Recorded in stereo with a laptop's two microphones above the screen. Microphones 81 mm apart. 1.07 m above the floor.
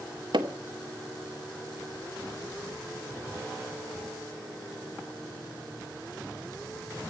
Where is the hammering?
85° right, 2 m.